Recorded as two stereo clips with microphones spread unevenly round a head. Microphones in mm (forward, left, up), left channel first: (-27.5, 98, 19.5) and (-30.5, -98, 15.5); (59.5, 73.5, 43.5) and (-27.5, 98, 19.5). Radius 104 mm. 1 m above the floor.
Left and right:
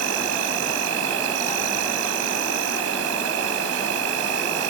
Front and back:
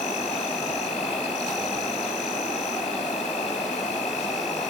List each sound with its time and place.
0.0 s an insect: 60° right, 2.5 m